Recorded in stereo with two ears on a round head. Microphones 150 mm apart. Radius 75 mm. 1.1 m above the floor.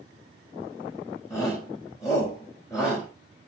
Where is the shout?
15° left (ahead or behind), 5.5 m.